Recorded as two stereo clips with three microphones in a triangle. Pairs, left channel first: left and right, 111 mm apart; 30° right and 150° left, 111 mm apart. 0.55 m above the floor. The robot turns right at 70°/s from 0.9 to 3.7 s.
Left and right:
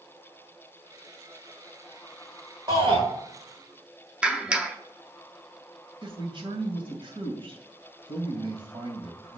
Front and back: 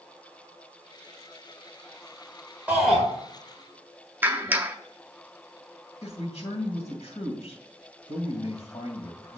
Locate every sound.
2.7 s a shout: 135° right, 1.7 m; by 3.0 s 110° right, 1.7 m
4.2 s a clap: 155° right, 0.7 m
6.0 s a man speaking: 55° right, 2.5 m